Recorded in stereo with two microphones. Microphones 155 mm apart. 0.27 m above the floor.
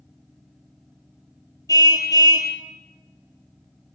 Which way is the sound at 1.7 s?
25° left (ahead or behind).